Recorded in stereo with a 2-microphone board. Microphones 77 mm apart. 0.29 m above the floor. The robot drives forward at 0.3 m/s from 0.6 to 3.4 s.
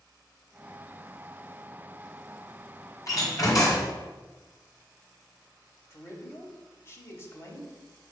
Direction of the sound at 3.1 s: 50° left (ahead or behind).